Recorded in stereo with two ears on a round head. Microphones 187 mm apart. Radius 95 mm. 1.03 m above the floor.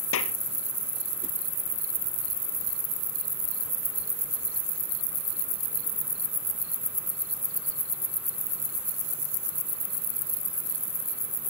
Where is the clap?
75° left (ahead or behind).